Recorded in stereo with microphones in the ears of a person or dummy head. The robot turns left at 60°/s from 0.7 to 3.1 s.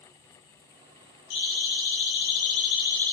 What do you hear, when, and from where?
1.3 s a siren: 65° left (ahead or behind), 8 m; by 3.1 s 10° left (ahead or behind), 7 m